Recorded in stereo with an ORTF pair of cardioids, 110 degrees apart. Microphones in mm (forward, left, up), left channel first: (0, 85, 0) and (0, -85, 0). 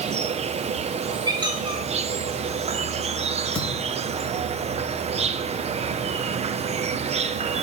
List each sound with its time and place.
0.0 s an insect: 40° right, 0.9 m
1.2 s a squeak: 25° right, 3.5 m
3.5 s a thud: 5° left, 6 m